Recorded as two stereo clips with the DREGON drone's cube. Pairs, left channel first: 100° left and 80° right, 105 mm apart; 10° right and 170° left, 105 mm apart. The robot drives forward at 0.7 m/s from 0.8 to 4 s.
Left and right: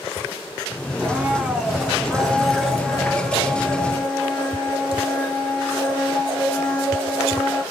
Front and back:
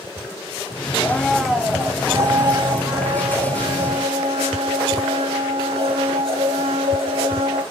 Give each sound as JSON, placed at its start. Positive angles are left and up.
{"t": 1.0, "sound": "a blender", "azimuth_deg": -30, "distance_m": 0.8}